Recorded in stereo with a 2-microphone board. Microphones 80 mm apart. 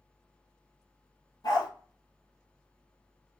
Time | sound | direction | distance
1.4 | a dog barking | 60° left (ahead or behind) | 1.4 m